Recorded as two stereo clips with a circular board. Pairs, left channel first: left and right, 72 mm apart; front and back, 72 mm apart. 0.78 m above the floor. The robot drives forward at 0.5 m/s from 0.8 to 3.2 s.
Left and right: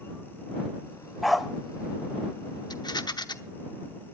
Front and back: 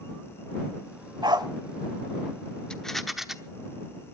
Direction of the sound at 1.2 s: Straight behind.